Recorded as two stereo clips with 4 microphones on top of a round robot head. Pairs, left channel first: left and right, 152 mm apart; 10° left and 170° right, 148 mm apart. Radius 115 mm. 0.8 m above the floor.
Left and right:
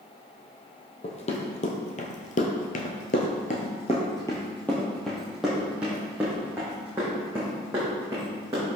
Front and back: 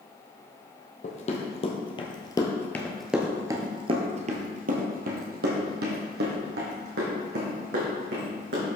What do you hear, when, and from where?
1.0 s running footsteps: 45° left, 1.8 m; by 8.7 s 165° right, 4 m